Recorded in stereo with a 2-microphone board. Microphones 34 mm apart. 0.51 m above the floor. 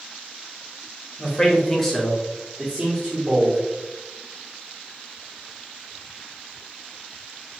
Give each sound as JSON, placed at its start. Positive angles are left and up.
{"t": 1.2, "sound": "a man speaking", "side_deg": 20, "distance_m": 1.3}